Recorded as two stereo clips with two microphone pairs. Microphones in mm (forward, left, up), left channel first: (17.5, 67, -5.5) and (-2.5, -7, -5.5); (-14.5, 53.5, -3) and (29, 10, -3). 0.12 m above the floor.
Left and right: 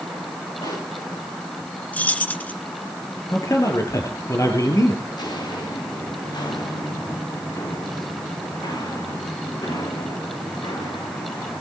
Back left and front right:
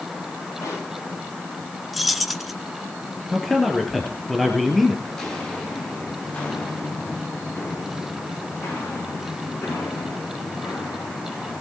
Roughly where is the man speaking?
Ahead left.